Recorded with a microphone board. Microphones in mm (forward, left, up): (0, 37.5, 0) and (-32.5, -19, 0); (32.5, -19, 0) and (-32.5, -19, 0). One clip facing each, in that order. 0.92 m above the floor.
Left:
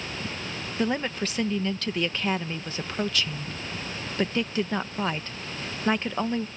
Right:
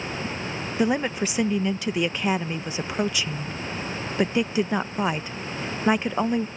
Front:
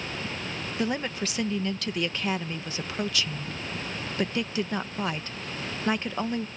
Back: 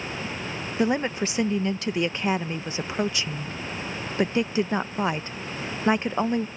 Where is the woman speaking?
170° right.